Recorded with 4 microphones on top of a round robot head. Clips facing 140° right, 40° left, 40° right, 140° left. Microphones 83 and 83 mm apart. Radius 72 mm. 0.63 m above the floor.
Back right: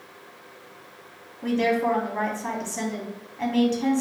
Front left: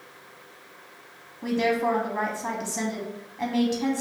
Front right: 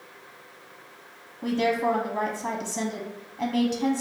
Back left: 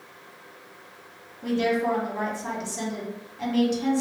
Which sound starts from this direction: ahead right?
A woman speaking, at 1.4 s.